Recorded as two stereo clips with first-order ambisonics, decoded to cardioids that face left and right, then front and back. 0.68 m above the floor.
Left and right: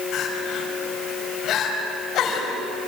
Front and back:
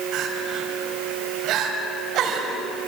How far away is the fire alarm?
I don't hear a fire alarm.